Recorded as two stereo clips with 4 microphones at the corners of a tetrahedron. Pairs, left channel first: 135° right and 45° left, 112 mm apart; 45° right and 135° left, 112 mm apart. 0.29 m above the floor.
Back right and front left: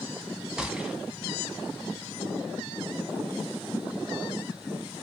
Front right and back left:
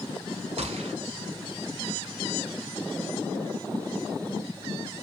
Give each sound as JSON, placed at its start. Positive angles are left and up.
{"t": 0.6, "sound": "a gunshot", "azimuth_deg": 130, "distance_m": 0.8}